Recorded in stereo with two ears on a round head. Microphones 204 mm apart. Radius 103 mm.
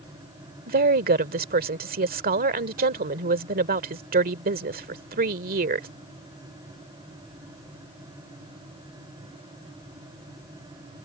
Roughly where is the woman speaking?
Right.